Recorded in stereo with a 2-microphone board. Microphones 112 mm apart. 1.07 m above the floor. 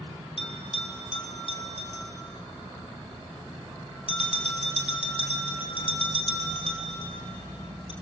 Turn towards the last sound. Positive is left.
turn(degrees=55)  # may be behind; listen again after turning